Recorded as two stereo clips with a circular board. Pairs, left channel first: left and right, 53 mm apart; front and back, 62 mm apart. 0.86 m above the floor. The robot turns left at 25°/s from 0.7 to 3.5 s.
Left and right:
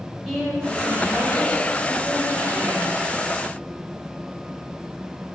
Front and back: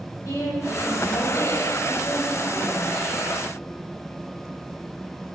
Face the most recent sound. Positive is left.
turn(degrees=-75)